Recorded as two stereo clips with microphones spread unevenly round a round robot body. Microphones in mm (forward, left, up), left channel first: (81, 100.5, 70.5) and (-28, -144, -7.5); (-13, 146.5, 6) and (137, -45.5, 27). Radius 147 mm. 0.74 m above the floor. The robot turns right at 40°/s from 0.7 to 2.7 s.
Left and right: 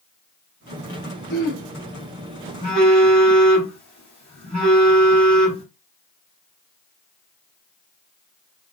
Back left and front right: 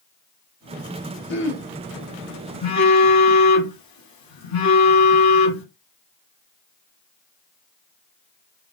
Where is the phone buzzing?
135° left, 2 m; by 5.6 s 140° left, 2 m.